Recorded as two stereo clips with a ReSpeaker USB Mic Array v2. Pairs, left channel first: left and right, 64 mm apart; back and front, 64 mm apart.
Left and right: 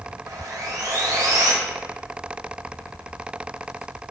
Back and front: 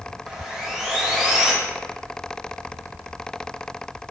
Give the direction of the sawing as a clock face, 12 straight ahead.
3 o'clock.